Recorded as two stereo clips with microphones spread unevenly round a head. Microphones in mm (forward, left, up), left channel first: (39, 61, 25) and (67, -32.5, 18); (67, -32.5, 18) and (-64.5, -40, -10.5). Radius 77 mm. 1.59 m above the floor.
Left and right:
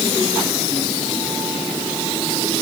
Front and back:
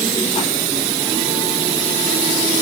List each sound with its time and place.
Only background noise.